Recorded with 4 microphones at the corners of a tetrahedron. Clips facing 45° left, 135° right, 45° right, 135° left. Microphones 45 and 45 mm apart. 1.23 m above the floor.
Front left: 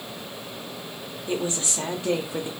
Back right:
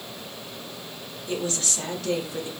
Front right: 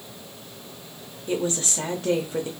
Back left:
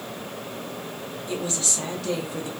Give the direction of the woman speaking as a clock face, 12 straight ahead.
12 o'clock.